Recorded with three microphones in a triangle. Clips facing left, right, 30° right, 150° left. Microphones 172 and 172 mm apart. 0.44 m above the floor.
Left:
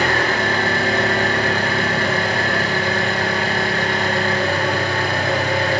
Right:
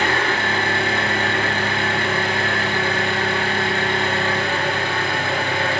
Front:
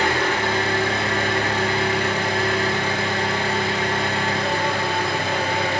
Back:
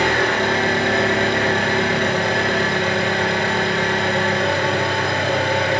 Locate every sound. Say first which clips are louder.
0.0 s an engine running: left 2 dB, back 3 dB; 140° left, 3 m